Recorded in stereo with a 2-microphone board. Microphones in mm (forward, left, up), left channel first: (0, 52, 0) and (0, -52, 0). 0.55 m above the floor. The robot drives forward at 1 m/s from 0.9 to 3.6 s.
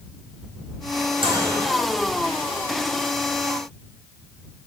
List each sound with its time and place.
1.2 s a microwave: 55° right (ahead or behind), 0.8 m; by 1.6 s 50° right (ahead or behind), 0.9 m